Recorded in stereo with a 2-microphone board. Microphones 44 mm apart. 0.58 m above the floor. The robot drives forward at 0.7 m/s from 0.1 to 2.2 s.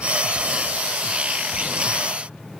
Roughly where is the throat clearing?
No throat clearing in this recording.